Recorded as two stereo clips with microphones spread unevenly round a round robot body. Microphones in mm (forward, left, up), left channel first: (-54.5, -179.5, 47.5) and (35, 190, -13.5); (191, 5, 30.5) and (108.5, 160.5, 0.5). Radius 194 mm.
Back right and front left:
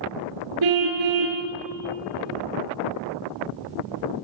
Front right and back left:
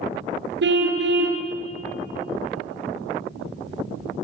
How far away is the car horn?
About 4 m.